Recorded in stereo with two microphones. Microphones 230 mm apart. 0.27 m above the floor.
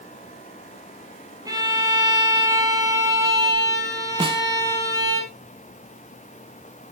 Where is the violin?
15° right (ahead or behind), 2 m.